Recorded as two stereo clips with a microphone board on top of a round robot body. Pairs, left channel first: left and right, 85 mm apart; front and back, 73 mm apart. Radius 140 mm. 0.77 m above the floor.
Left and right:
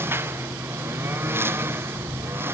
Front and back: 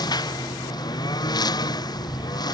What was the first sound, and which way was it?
A lawn mower, 25° right.